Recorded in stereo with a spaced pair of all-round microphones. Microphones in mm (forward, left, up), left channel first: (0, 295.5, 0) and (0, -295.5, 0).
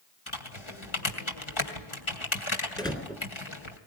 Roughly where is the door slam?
Centre.